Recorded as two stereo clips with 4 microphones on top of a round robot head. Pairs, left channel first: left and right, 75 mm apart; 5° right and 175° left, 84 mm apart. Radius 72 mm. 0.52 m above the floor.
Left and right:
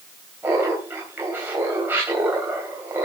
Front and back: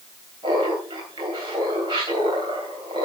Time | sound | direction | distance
0.4 | laughter | 150° right | 3.5 m